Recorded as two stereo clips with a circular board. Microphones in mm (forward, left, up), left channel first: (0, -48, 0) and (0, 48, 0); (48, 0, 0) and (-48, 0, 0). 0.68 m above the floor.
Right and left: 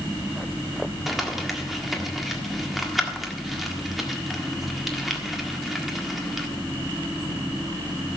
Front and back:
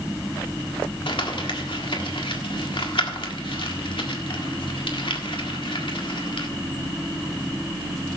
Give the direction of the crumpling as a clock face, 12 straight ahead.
12 o'clock.